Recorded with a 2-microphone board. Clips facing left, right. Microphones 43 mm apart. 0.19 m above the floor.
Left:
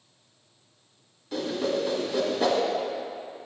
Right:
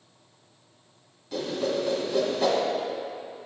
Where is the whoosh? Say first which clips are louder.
Even; 5° left (ahead or behind), 1.5 m.